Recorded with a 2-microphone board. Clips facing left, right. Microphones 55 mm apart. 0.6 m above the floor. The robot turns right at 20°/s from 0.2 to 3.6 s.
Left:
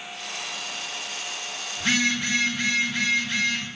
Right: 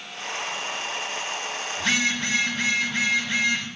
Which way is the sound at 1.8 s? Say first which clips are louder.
Left 1 dB; 155° left.